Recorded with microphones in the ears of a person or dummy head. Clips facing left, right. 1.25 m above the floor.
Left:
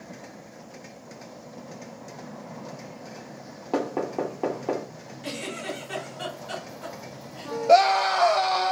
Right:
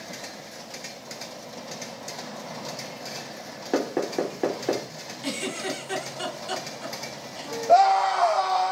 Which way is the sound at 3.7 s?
20° right (ahead or behind).